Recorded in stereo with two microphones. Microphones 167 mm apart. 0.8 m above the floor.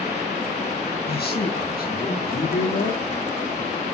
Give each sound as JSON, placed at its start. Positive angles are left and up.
{"t": 1.1, "sound": "a man speaking", "side_deg": 75, "distance_m": 8.5}